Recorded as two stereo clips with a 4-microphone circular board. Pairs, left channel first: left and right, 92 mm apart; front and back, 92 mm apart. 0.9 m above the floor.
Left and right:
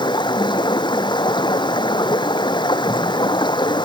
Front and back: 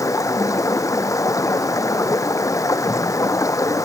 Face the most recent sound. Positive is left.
turn(degrees=55)